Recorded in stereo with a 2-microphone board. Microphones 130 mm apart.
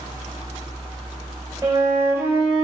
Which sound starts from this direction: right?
A flute, at 1.6 s.